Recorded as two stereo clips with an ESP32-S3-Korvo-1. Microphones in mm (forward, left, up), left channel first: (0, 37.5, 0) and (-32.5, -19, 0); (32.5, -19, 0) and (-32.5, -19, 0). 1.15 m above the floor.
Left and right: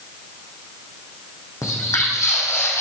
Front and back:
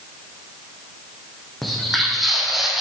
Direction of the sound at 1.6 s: 85° left.